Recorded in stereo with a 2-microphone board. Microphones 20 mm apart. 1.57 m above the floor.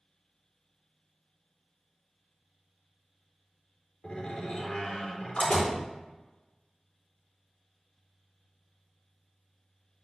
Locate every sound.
4.0 s a door slam: 60° left (ahead or behind), 3 m